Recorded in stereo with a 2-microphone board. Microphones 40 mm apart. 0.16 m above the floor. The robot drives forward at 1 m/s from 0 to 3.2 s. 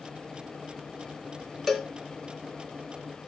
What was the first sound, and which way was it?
A cowbell, 10° left (ahead or behind).